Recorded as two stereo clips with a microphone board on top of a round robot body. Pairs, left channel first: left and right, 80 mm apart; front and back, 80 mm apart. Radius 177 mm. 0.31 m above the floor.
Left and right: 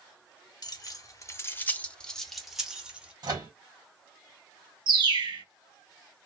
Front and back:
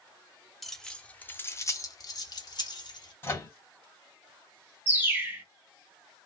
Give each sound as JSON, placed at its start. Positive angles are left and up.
{"t": 0.6, "sound": "keys jangling", "azimuth_deg": 90, "distance_m": 1.0}
{"t": 3.2, "sound": "a microwave", "azimuth_deg": -60, "distance_m": 1.7}
{"t": 4.9, "sound": "a bird", "azimuth_deg": -110, "distance_m": 0.9}